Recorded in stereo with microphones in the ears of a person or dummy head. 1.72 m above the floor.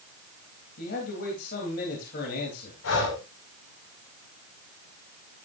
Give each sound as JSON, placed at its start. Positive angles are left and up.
{"t": 0.8, "sound": "a man speaking", "side_deg": 55, "distance_m": 3.5}
{"t": 2.8, "sound": "breathing", "side_deg": 75, "distance_m": 4.5}